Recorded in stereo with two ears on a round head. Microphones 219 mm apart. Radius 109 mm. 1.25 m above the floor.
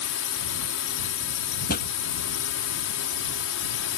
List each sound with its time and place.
0.0 s a drone: 60° left (ahead or behind)
1.7 s a pop: 40° left (ahead or behind)